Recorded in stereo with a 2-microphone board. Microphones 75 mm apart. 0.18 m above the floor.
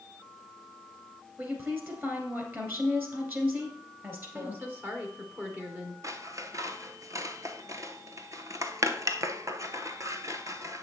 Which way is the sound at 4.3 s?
25° right (ahead or behind).